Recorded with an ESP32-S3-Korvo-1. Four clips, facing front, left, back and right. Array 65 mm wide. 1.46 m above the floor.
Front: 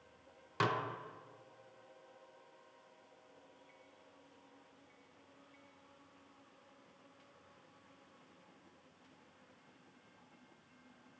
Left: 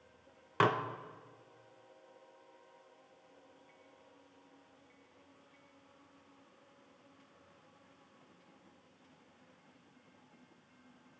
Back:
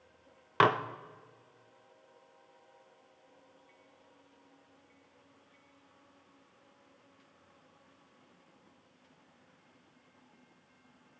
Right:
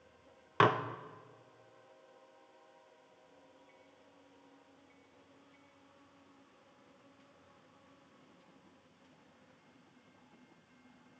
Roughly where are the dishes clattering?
Behind.